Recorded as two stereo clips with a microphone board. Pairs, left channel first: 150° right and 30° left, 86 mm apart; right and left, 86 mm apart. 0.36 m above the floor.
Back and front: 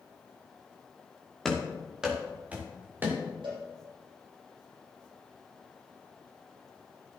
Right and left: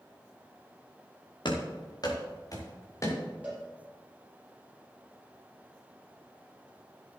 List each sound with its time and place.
1.4 s running footsteps: 65° right, 3 m; by 3.2 s 35° right, 4 m
3.4 s a cowbell: 20° left, 5 m